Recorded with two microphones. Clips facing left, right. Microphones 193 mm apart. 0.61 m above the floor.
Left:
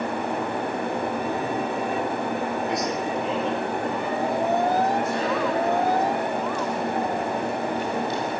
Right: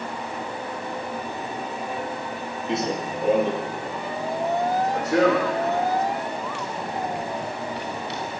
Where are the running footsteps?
20° right (ahead or behind), 0.8 m; by 8.3 s 70° right (ahead or behind), 5.5 m.